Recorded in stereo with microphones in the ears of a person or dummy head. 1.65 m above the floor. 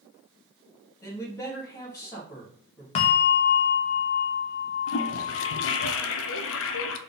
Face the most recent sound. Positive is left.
turn(degrees=70)  # may be behind; listen again after turning